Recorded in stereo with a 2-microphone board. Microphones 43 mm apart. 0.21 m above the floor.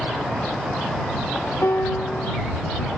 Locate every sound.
1.6 s a piano: 75° left (ahead or behind)